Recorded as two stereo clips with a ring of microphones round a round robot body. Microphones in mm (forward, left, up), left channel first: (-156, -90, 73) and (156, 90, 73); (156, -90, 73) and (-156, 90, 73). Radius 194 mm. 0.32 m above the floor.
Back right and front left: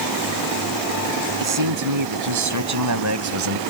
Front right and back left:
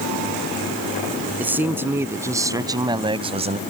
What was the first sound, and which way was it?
A man speaking, 65° left.